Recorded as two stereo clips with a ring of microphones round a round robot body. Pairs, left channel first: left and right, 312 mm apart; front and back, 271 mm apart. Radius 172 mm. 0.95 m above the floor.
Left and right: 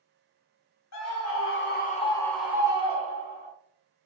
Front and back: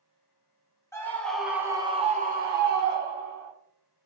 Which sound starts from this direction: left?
A scream, at 0.9 s.